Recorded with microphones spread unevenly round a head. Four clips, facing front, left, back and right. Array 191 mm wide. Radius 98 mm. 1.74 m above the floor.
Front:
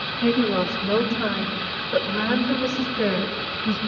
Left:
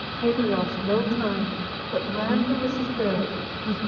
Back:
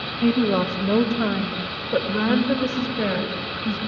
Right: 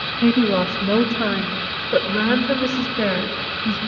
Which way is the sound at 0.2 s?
115° right.